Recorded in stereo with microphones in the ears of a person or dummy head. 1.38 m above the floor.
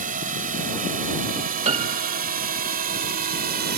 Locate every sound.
0.0 s a drone: 40° right (ahead or behind); by 3.8 s 45° right (ahead or behind)
1.6 s a piano: 35° right (ahead or behind)